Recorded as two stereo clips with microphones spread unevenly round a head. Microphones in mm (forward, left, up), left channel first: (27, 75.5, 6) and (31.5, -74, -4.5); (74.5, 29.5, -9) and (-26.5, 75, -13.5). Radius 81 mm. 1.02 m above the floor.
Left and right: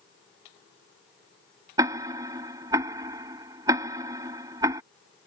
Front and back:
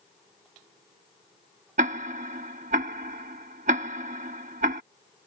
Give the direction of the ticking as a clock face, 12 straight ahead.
5 o'clock.